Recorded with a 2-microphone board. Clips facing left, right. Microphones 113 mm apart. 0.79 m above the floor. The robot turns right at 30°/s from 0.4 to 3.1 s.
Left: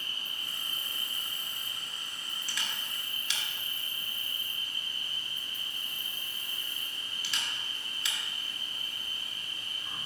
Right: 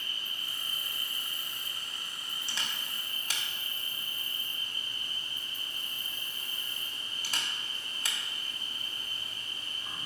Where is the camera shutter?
25° right (ahead or behind), 0.6 m; by 8.2 s 40° right (ahead or behind), 0.6 m.